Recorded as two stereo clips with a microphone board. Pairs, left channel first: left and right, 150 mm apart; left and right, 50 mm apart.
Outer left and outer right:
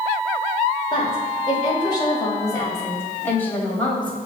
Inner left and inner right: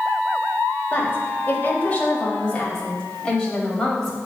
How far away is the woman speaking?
About 1.4 m.